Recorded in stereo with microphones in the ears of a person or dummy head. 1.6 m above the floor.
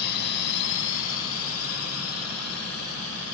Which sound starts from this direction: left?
A drone, at 0.0 s.